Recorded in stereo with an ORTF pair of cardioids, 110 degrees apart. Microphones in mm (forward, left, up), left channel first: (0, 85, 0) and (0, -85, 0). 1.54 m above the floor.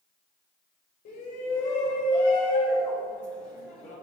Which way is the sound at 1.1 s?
45° left.